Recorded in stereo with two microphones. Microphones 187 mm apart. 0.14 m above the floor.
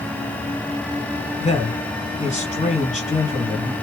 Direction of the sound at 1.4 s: 40° left (ahead or behind).